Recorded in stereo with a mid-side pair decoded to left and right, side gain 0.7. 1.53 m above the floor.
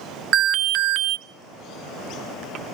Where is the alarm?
55° right, 0.8 m.